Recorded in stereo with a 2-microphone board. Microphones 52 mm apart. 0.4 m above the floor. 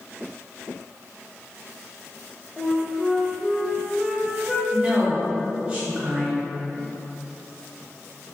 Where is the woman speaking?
20° right (ahead or behind), 1.0 m.